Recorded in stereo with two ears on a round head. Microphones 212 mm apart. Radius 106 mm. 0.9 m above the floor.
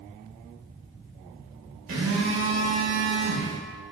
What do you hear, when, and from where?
1.9 s a phone buzzing: 55° right (ahead or behind), 1.2 m